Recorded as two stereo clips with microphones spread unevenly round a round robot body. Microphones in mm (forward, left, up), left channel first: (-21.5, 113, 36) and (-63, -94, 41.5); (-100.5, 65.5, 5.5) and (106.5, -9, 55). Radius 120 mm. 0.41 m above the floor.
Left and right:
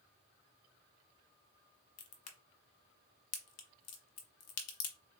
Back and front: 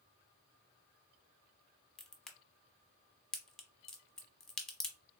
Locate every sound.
2.0 s a crack: 75° left, 0.9 m